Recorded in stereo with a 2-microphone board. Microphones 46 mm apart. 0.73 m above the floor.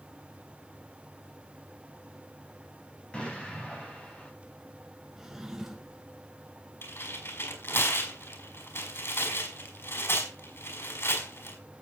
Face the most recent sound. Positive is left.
turn(degrees=50)  # may be behind; listen again after turning